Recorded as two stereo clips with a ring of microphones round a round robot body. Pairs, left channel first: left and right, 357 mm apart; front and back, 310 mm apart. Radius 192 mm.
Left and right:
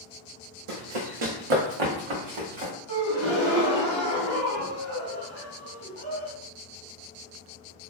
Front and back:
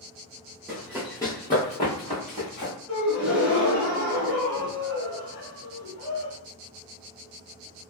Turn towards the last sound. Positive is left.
turn(degrees=-75)